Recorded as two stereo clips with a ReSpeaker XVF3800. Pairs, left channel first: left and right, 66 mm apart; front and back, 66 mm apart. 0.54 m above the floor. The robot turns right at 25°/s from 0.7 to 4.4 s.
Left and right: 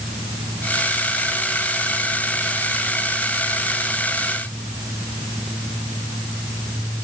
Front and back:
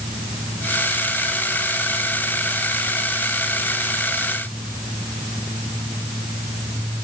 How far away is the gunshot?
No gunshot in this recording.